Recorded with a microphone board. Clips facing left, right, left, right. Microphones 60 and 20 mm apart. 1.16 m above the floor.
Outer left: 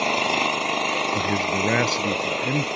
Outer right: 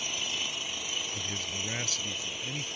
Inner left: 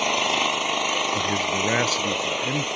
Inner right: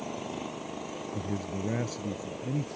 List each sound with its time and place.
0.0 s an engine running: 65° left (ahead or behind)
1.1 s a man speaking: 55° left (ahead or behind)